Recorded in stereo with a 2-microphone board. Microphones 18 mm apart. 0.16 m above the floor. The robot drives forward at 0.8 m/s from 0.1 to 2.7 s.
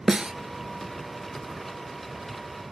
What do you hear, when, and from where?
0.1 s a snare drum: 45° right (ahead or behind), 0.5 m; by 0.3 s 35° right (ahead or behind), 0.7 m